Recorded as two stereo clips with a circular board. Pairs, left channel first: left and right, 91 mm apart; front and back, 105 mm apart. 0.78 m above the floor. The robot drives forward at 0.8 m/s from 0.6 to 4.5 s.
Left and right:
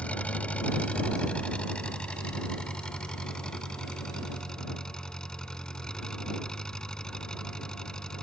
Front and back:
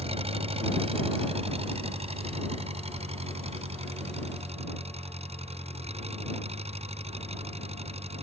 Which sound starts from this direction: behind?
An engine running, at 0.0 s.